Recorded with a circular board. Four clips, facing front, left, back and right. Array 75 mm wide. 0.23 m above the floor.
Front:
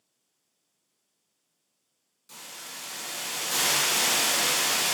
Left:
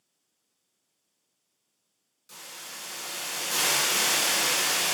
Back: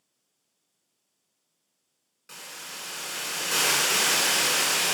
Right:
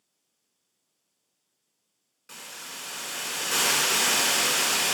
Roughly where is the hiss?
Behind right.